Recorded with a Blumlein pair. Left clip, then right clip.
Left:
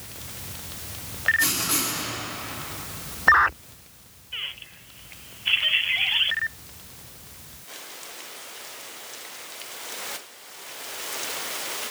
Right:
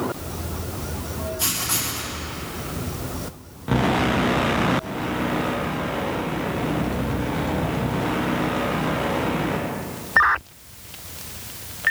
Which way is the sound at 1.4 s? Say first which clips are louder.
Left 1 dB; 10° right.